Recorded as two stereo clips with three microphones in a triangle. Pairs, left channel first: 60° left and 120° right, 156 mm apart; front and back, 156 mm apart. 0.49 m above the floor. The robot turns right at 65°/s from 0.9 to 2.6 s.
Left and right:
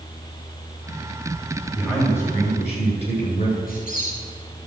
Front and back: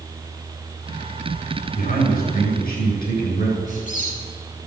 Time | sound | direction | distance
1.8 | a man speaking | 40° right | 8.5 m
3.7 | a squeak | 35° left | 6 m